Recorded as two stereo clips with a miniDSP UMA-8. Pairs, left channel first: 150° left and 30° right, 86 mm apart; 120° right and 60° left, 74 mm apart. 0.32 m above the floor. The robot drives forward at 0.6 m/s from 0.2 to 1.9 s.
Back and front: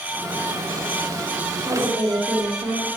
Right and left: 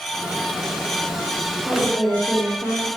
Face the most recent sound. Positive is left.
turn(degrees=-10)